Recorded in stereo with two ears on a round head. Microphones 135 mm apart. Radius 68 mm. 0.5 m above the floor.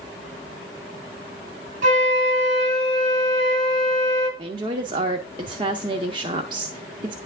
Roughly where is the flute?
Right.